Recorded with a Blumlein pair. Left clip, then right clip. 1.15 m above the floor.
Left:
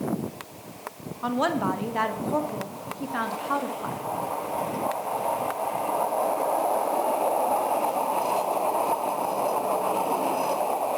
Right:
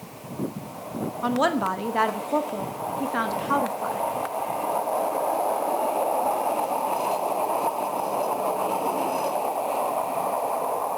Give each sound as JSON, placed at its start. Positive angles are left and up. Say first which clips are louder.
{"t": 1.2, "sound": "a woman speaking", "louder": "right 2 dB", "azimuth_deg": -10, "distance_m": 1.0}